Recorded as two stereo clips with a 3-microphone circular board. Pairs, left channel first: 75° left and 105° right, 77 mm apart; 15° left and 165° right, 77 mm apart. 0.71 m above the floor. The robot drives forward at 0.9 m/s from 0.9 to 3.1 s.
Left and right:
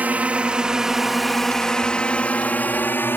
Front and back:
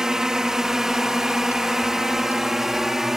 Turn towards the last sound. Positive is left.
turn(degrees=115)